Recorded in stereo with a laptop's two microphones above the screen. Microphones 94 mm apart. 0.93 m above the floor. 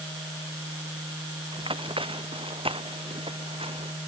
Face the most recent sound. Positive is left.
turn(degrees=-70)  # may be behind; listen again after turning